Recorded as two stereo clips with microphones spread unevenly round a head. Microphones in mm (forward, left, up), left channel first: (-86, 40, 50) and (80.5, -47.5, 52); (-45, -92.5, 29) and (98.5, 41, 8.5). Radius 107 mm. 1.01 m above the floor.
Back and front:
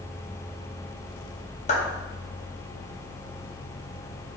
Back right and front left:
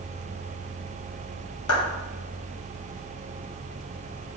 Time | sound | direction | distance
1.7 | a clap | 155° right | 2.5 m